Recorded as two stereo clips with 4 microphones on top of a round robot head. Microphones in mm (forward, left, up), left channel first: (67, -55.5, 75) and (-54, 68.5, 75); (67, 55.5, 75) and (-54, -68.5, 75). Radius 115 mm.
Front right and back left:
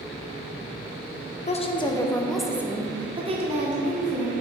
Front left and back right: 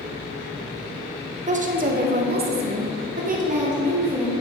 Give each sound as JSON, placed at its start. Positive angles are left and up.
{"t": 1.5, "sound": "a woman speaking", "azimuth_deg": -90, "distance_m": 1.1}